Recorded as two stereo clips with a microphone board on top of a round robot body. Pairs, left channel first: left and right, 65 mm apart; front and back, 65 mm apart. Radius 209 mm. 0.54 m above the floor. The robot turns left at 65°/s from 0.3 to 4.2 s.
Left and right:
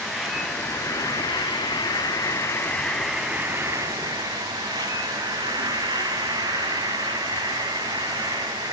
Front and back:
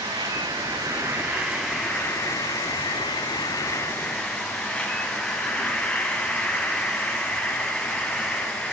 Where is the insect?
Straight behind, 1.0 m; by 8.7 s 75° right, 1.0 m.